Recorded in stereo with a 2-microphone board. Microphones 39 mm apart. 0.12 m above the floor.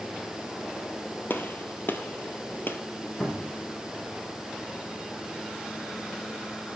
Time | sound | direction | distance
1.3 | a gunshot | 55° left (ahead or behind) | 1.7 m
3.2 | a cupboard door | 10° left (ahead or behind) | 4.5 m